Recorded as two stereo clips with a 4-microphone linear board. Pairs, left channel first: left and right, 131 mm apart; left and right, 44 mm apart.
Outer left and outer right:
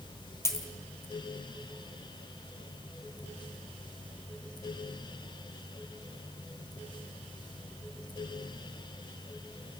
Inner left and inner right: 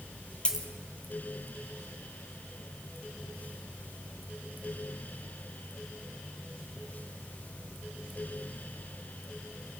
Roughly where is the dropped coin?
Left.